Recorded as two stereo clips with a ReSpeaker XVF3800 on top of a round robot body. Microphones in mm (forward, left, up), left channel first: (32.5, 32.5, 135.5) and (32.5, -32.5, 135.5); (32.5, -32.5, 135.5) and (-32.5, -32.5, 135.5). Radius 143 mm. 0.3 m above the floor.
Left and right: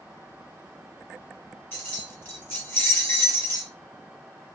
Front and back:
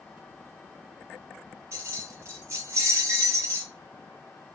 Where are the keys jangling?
145° left, 1.3 m.